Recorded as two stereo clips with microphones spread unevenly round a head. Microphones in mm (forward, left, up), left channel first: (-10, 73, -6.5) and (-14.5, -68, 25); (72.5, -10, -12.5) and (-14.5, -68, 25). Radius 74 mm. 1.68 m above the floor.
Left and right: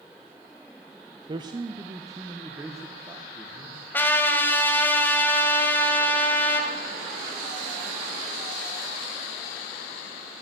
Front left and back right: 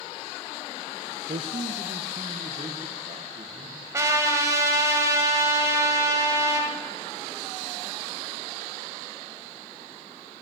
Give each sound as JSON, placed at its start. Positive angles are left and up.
{"t": 1.3, "sound": "a man speaking", "azimuth_deg": -145, "distance_m": 0.6}
{"t": 3.9, "sound": "a trumpet", "azimuth_deg": 175, "distance_m": 2.0}